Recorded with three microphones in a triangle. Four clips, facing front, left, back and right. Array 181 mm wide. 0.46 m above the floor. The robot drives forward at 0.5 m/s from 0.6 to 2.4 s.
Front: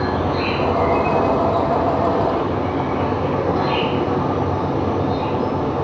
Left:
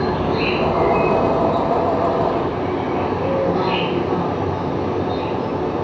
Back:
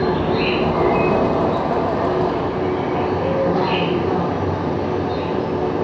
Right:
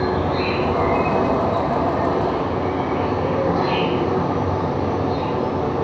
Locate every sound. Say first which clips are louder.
0.0 s an insect: left 1 dB, back 2 dB; 145° left, 2 m; by 5.8 s 155° left, 3 m